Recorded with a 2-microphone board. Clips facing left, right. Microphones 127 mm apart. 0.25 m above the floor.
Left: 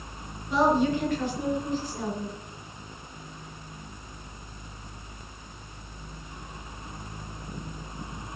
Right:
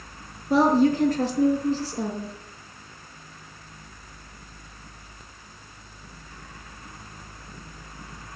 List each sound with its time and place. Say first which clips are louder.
0.5 s a woman speaking: right 4 dB; 40° right (ahead or behind), 4 m; by 2.4 s 30° right (ahead or behind), 5.5 m